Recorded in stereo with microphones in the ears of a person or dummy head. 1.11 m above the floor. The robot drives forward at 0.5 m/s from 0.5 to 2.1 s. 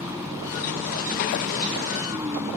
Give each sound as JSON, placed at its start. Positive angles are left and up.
{"t": 0.0, "sound": "a vehicle", "side_deg": -10}